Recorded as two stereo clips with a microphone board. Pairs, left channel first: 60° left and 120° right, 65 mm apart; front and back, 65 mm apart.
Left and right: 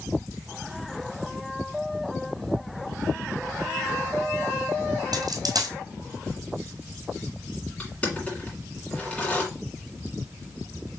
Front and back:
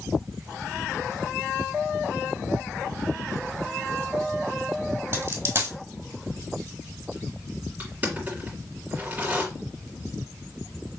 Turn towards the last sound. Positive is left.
turn(degrees=125)